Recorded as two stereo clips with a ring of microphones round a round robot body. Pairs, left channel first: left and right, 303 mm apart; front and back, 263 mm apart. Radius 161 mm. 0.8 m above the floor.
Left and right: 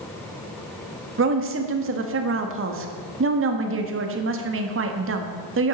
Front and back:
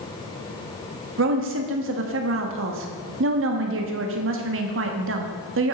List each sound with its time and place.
1.2 s a woman speaking: 140° right, 1.2 m